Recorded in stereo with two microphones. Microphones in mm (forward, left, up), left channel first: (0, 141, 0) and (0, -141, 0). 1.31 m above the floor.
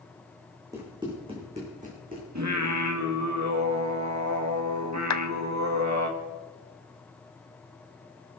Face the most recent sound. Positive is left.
turn(degrees=70)  # may be behind; listen again after turning